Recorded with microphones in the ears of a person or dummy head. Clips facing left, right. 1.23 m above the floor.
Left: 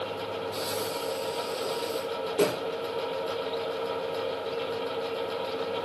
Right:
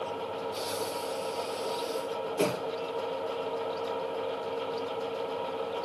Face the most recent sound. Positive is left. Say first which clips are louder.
# left 2 dB
turn(degrees=45)  # may be behind; listen again after turning